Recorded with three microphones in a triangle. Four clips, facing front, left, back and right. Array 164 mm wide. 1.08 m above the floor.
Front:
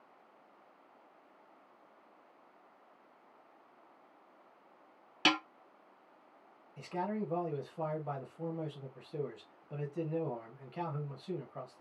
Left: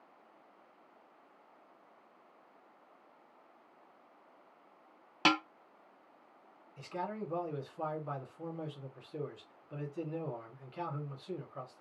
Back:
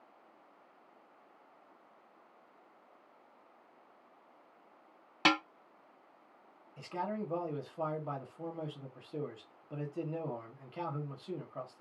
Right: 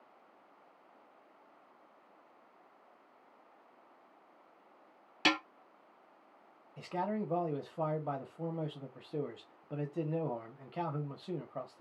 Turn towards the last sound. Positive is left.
turn(degrees=-95)